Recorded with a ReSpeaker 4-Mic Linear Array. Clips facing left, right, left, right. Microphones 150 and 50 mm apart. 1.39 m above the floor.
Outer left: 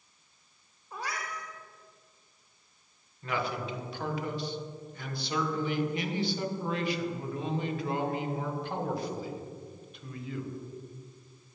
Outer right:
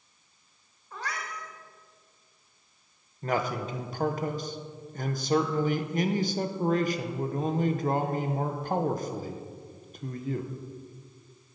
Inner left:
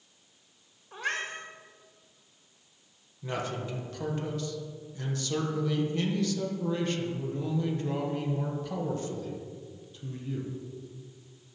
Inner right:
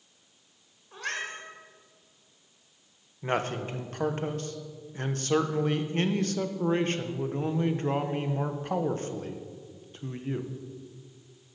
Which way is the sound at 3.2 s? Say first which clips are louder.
Outer right 4 dB, inner right 4 dB; 45° right (ahead or behind).